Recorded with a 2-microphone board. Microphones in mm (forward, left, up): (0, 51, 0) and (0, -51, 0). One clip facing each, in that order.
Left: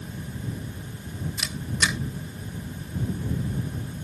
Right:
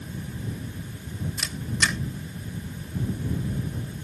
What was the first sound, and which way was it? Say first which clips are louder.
A camera shutter: even; 10° left (ahead or behind).